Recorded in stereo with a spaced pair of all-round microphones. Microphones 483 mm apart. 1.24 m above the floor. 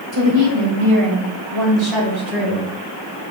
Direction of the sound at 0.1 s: 65° right (ahead or behind).